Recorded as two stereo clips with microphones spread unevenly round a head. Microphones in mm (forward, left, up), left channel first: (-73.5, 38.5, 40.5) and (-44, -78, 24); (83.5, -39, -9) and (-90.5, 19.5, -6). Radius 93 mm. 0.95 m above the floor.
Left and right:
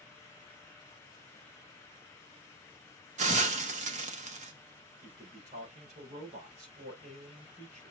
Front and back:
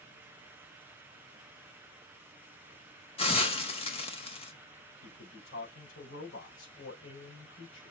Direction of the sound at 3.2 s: 80° right.